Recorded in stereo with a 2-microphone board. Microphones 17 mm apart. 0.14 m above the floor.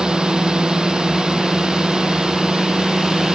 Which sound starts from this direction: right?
A drone, at 0.0 s.